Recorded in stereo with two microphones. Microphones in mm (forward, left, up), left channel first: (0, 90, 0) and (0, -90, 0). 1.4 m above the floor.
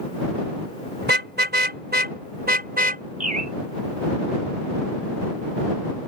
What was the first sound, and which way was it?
A car horn, 75° right (ahead or behind).